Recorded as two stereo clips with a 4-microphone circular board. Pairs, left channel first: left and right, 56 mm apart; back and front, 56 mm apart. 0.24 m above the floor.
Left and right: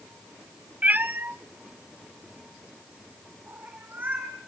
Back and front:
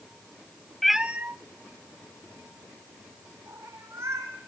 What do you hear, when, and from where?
0.8 s a cat meowing: 105° right, 0.6 m; by 4.3 s 30° right, 5.5 m